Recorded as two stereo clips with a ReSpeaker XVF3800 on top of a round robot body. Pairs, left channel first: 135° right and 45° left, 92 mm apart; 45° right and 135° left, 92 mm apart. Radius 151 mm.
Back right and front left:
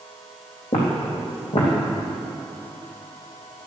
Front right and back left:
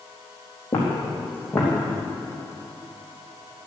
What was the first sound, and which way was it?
Footsteps, 105° right.